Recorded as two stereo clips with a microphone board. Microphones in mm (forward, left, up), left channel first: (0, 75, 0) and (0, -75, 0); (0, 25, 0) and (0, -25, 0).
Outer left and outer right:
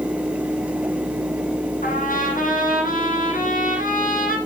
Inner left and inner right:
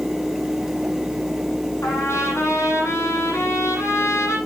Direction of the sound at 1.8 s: 80° left.